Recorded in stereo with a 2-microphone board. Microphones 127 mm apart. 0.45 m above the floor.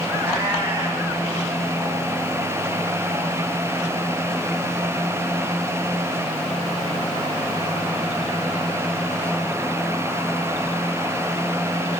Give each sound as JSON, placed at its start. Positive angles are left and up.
{"t": 0.2, "sound": "a cat meowing", "side_deg": -20, "distance_m": 3.0}